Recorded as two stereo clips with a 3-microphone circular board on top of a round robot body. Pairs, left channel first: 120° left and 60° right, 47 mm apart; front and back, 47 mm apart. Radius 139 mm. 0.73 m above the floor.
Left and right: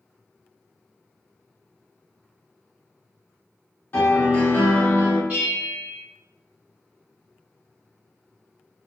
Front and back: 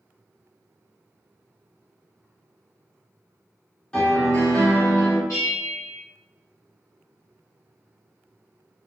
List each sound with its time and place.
3.9 s a piano: 75° left, 1.0 m
5.3 s a bell: 10° right, 0.9 m